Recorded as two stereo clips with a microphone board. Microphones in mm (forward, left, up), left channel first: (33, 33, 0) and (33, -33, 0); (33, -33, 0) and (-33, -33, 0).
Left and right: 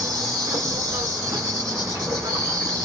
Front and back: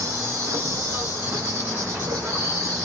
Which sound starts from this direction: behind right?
An insect, at 0.0 s.